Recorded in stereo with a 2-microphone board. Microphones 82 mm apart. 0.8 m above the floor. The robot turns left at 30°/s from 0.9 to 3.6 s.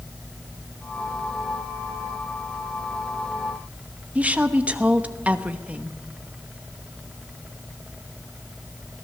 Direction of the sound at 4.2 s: 15° right (ahead or behind).